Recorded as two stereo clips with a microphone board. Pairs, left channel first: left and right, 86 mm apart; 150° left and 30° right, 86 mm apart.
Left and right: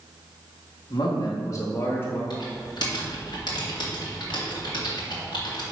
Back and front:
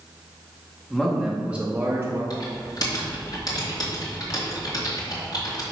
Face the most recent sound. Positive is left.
turn(degrees=115)